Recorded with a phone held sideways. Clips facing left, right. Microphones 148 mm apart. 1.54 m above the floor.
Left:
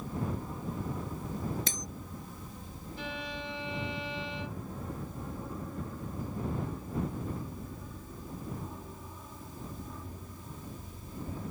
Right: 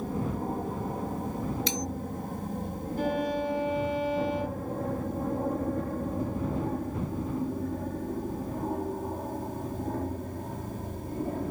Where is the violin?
50° right (ahead or behind).